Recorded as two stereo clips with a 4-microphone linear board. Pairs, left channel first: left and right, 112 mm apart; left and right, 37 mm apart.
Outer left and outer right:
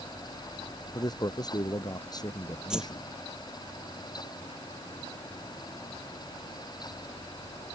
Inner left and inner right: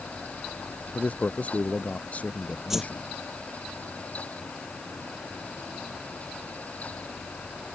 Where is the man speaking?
35° left (ahead or behind).